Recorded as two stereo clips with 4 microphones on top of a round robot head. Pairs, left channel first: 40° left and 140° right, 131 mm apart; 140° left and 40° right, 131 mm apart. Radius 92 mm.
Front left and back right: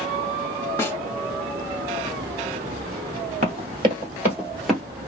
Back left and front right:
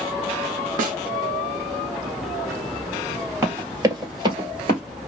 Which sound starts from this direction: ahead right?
A snare drum, at 0.8 s.